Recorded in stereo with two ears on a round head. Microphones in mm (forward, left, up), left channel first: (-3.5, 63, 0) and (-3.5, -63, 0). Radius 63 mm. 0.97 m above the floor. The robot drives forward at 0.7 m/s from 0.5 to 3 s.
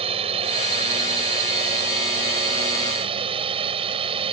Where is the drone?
45° right (ahead or behind); by 4.3 s 40° right (ahead or behind).